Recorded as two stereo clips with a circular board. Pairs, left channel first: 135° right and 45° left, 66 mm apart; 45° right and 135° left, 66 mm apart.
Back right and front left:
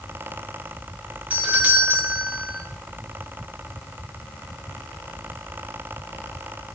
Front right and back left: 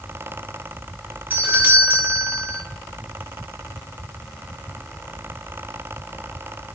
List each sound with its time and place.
1.3 s a doorbell: 95° left, 1.2 m